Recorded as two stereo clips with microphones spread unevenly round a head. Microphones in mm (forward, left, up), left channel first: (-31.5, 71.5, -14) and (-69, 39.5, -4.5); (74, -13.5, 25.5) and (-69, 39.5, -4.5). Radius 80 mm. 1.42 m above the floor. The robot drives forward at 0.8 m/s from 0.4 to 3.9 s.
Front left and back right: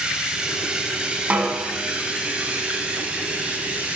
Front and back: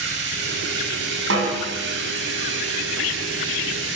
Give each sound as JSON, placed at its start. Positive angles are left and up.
{"t": 0.0, "sound": "running water", "azimuth_deg": 150, "distance_m": 8.0}
{"t": 1.3, "sound": "a snare drum", "azimuth_deg": 165, "distance_m": 7.5}